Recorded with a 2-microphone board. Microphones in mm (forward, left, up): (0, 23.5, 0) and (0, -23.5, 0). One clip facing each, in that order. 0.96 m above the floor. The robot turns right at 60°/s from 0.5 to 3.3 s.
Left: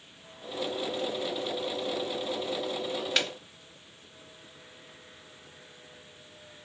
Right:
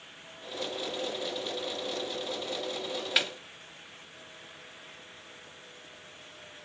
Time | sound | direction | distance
3.2 | a snare drum | 10° right (ahead or behind) | 1.1 m